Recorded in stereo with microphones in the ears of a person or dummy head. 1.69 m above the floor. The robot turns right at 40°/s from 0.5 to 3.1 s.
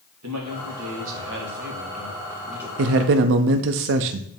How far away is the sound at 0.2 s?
About 1.8 m.